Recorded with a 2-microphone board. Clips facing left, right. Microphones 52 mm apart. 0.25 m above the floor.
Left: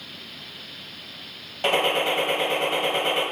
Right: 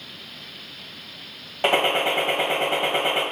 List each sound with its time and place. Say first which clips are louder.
1.6 s a gunshot: right 1 dB; 25° right (ahead or behind), 1.2 m